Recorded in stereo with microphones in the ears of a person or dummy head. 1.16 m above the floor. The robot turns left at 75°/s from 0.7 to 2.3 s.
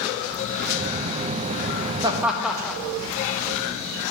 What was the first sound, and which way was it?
Laughter, 20° right (ahead or behind).